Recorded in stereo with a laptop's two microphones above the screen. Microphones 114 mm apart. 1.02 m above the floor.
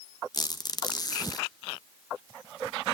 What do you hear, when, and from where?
0.3 s a squeak: 35° left (ahead or behind), 0.6 m